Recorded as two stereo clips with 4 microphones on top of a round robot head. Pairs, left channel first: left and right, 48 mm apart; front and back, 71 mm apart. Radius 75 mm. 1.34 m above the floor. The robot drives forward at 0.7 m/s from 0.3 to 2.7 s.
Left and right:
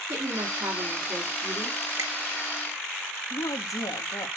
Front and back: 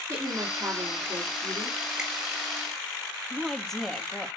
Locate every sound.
0.1 s a woman speaking: 110° right, 3 m; by 1.8 s 130° right, 3.5 m
2.0 s a finger snap: 100° right, 1.7 m
3.3 s a woman speaking: 90° left, 2 m